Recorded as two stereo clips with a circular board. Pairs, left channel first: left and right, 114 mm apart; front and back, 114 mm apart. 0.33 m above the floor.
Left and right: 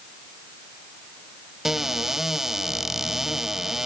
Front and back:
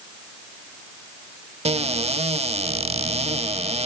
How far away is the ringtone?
I don't hear a ringtone.